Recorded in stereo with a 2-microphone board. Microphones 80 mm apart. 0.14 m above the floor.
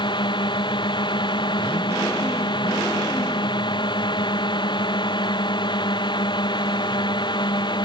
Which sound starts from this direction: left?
A drone, at 0.0 s.